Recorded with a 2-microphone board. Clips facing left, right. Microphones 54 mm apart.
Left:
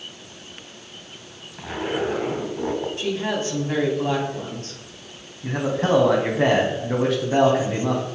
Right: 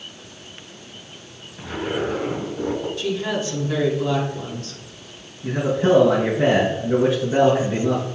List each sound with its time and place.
1.6 s a zipper: 35° left (ahead or behind), 2.5 m
3.0 s a woman speaking: 35° left (ahead or behind), 2.5 m
5.4 s a man speaking: 70° left (ahead or behind), 2.5 m